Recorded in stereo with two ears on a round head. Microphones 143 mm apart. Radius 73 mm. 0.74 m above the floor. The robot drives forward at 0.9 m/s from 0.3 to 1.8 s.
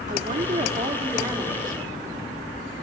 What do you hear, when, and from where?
0.1 s a woman speaking: 50° right (ahead or behind), 1.3 m; by 2.3 s 25° right (ahead or behind), 2.5 m